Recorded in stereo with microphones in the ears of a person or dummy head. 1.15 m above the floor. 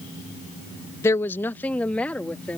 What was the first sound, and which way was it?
A woman speaking, 15° left (ahead or behind).